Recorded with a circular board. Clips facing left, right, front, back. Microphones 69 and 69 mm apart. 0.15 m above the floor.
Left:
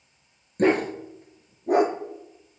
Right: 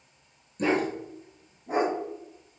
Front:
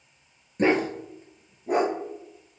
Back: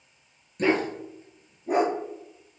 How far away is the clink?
No clink in this recording.